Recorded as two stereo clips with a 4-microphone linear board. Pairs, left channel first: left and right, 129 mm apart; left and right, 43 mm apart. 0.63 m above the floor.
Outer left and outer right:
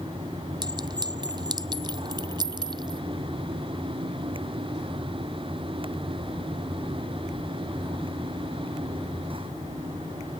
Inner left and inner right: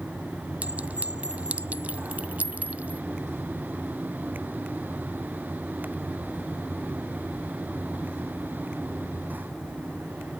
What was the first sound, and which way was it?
A clink, 35° right (ahead or behind).